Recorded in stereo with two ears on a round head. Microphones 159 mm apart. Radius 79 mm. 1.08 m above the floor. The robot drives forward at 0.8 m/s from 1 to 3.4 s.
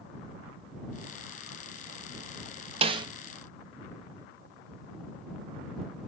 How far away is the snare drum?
About 0.6 m.